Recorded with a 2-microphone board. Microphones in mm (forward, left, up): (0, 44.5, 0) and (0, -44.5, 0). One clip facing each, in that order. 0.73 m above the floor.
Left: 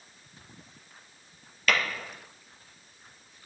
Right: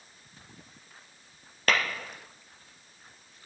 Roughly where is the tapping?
Right.